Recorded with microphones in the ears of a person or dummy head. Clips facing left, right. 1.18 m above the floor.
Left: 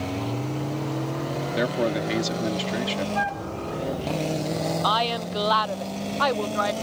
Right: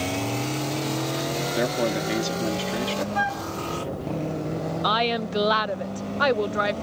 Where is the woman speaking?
30° right (ahead or behind).